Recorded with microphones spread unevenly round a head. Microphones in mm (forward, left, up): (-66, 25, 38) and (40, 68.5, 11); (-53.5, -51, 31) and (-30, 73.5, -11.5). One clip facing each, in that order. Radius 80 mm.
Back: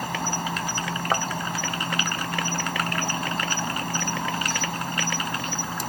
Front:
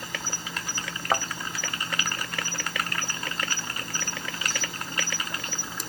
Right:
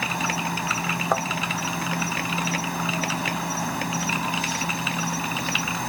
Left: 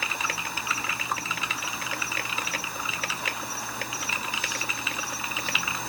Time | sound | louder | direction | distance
0.0 | an insect | back 9 dB, right 6 dB | 105° right | ?
1.1 | a thud | even, right 10 dB | 75° right | ?